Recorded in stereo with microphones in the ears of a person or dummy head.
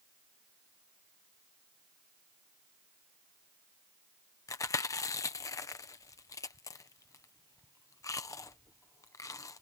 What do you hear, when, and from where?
4.5 s chewing: 15° left (ahead or behind)